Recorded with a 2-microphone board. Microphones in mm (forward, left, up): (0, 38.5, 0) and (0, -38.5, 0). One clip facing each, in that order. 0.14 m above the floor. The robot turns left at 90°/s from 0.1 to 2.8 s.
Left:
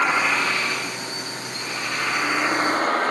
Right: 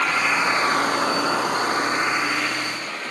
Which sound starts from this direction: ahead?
A vehicle, at 0.0 s.